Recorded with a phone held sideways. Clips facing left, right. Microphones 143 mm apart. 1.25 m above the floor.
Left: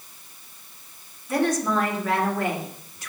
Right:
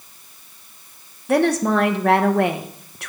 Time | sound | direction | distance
1.3 | a woman speaking | 75° right (ahead or behind) | 1.3 m